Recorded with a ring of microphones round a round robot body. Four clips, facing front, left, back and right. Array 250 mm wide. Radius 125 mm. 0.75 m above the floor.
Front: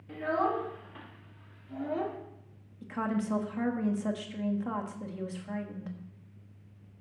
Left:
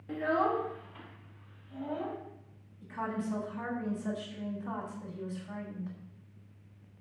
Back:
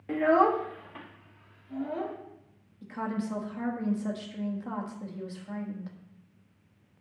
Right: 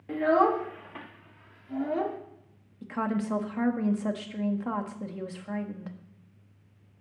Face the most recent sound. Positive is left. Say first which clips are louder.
# right 6 dB, front 1 dB
turn(degrees=-75)